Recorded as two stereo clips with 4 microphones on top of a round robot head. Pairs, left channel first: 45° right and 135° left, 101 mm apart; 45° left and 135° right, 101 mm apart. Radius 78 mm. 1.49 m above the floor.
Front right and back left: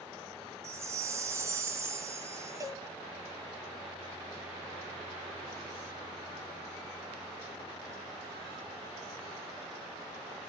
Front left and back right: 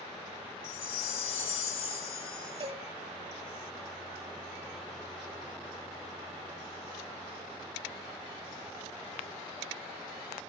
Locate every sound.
0.6 s a chime: 75° left, 1.5 m
2.6 s a cowbell: 170° right, 1.6 m